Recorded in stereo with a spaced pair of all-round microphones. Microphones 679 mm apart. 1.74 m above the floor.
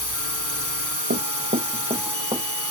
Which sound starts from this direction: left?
A drone, at 0.0 s.